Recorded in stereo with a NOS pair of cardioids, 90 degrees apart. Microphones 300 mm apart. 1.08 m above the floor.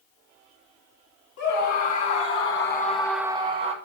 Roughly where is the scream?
Left.